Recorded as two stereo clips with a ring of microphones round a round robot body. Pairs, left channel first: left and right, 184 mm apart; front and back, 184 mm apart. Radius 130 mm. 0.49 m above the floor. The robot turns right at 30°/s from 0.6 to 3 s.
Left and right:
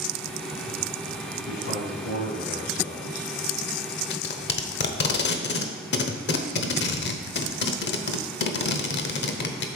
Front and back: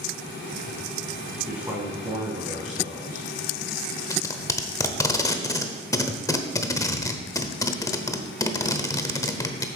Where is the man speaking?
90° left, 4.5 m; by 3.3 s 140° left, 4.5 m.